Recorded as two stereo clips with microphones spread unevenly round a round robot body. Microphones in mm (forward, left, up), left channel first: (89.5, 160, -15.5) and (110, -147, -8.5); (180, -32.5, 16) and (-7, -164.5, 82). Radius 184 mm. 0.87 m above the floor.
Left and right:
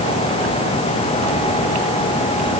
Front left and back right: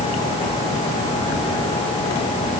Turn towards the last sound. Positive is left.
No sound to turn to.